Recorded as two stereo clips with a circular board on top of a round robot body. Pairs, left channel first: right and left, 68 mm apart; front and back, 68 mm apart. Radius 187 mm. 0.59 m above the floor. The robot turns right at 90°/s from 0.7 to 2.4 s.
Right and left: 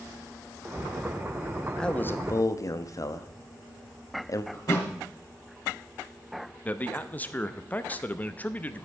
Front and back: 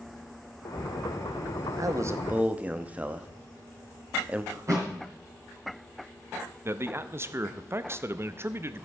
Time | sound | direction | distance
1.8 | a man speaking | 170° right | 1.1 m
4.5 | a thud | 135° right | 3.5 m
6.7 | a man speaking | 145° right | 0.9 m